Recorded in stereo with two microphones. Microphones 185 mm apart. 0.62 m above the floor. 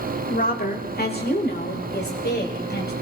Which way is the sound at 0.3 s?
50° left (ahead or behind).